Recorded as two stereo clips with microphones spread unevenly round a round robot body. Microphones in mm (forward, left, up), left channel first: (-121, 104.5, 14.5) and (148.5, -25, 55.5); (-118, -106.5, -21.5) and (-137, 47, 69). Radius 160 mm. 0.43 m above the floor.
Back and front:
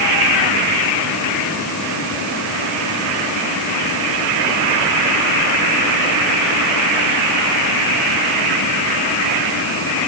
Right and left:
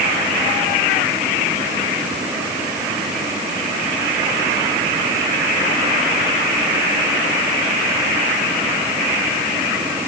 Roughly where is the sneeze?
I don't hear a sneeze.